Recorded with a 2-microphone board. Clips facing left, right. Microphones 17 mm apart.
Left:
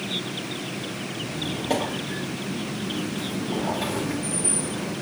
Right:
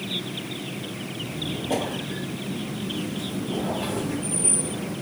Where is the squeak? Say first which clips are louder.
Even; 85° left, 3.5 m.